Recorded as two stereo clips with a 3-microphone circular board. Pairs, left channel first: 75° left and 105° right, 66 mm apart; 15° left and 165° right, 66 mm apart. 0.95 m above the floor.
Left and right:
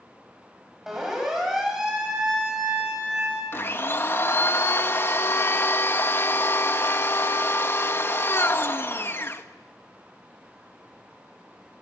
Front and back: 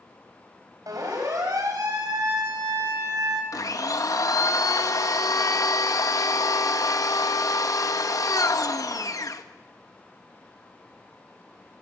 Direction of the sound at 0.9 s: 170° left.